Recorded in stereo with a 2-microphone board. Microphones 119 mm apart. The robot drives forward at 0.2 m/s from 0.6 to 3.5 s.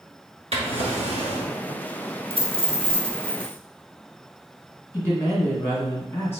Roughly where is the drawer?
Right.